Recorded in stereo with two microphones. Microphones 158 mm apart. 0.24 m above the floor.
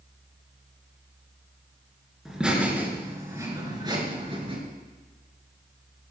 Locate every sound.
2.2 s laughter: 5° right (ahead or behind), 3.5 m; by 4.6 s 35° right (ahead or behind), 4 m